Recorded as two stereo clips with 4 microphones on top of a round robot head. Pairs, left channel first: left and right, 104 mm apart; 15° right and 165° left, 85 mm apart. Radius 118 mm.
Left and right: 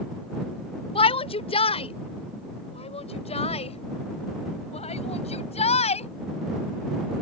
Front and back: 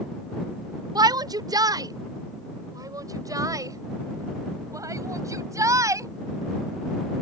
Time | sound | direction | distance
0.9 | a shout | 125° left | ?